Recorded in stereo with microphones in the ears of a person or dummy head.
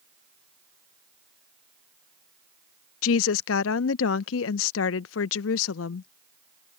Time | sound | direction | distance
3.0 | a woman speaking | 75° left (ahead or behind) | ?